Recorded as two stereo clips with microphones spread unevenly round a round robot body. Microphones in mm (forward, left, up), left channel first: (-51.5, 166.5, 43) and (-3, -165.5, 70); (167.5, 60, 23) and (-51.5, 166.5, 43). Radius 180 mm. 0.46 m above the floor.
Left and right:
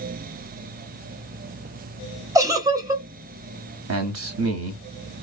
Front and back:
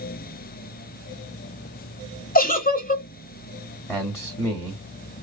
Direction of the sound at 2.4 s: Straight ahead.